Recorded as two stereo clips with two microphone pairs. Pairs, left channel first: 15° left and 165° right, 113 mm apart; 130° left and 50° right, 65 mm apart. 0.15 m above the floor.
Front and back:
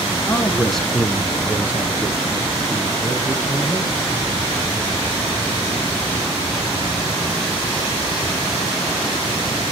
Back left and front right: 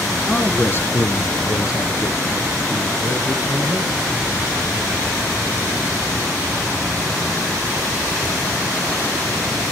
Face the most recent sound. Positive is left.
turn(degrees=130)